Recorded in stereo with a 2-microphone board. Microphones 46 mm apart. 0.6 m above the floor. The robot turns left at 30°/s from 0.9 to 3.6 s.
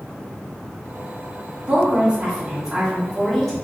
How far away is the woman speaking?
About 1.2 m.